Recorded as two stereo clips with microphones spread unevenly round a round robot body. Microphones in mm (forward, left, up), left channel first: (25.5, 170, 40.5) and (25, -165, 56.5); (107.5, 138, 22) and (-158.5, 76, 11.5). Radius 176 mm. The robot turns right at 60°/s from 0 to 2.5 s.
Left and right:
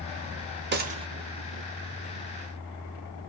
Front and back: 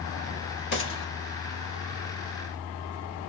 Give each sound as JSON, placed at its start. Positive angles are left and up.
{"t": 0.7, "sound": "a gunshot", "azimuth_deg": -35, "distance_m": 0.7}